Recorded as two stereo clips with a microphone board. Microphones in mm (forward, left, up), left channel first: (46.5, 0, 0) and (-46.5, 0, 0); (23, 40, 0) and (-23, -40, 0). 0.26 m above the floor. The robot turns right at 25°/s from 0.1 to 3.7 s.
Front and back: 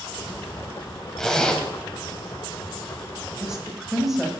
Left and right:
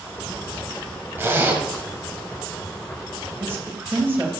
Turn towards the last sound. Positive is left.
turn(degrees=-100)